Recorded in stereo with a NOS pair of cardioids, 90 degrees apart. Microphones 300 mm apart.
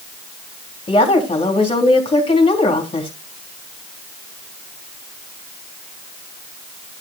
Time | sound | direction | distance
0.9 | a woman speaking | 20° left | 3 m